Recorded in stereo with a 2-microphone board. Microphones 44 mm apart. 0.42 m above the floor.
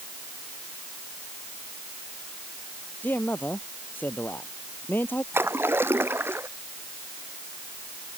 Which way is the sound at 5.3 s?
60° right (ahead or behind).